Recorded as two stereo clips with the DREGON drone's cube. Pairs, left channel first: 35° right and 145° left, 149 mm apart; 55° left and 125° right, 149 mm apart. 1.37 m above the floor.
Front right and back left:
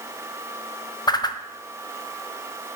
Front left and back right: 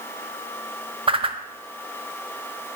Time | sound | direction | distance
1.1 | a whoosh | 85° right | 0.6 m